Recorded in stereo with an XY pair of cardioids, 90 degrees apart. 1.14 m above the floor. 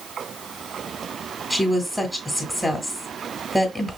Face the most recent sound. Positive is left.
turn(degrees=10)